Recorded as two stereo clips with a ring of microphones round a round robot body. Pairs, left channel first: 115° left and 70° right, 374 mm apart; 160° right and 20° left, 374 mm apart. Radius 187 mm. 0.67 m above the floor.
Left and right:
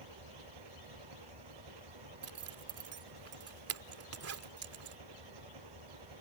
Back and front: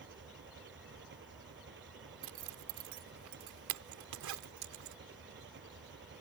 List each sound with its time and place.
0.0 s an engine running: 40° right
2.2 s a zipper: 20° right